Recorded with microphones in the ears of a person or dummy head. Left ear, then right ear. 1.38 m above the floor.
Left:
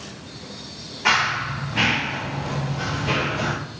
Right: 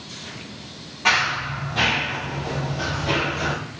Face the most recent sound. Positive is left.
turn(degrees=35)  # may be behind; listen again after turning